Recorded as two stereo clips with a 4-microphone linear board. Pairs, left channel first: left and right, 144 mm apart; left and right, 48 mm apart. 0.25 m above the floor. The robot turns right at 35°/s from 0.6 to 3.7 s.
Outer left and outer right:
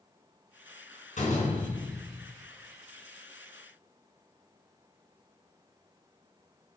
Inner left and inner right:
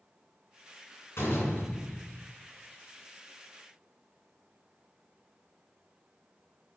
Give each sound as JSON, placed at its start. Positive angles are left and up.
{"t": 1.2, "sound": "a door slam", "azimuth_deg": 100, "distance_m": 2.5}